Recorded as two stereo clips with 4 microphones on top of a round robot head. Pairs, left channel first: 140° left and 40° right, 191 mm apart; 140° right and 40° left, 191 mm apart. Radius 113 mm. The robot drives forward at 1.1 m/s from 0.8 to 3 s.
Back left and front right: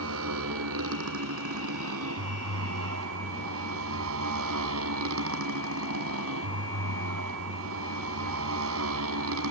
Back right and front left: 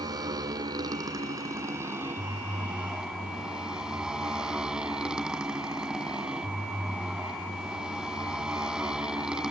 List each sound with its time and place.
0.0 s a motorcycle: 35° right; by 9.5 s 50° right